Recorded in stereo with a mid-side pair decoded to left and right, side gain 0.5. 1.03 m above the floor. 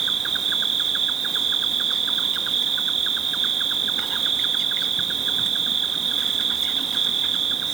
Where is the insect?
45° right, 0.9 m.